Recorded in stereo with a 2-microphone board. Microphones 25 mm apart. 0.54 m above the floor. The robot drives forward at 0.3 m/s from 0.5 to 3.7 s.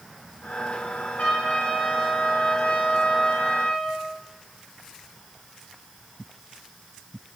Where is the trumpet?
70° left (ahead or behind), 3.5 m; by 4.0 s 65° left (ahead or behind), 3.5 m.